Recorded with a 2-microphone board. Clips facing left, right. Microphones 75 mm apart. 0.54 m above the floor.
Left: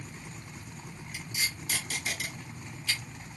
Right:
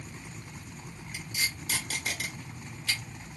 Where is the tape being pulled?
55° right (ahead or behind), 1.3 m.